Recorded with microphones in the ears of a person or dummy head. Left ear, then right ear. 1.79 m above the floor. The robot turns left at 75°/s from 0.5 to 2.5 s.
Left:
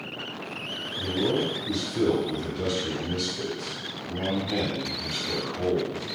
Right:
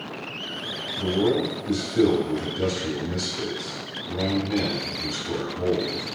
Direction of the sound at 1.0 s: 70° right.